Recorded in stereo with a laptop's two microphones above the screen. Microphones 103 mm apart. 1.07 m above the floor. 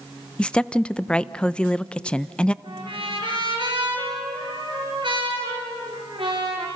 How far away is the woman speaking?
About 0.6 m.